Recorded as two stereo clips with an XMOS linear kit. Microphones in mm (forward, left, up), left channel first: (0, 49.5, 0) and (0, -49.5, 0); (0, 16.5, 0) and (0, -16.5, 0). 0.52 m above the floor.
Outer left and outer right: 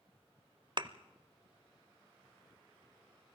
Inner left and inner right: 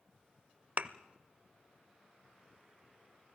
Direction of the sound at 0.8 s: 50° right (ahead or behind).